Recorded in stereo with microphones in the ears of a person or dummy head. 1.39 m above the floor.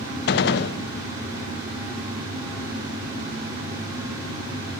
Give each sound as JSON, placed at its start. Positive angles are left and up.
{"t": 0.3, "sound": "a gunshot", "side_deg": 60, "distance_m": 1.0}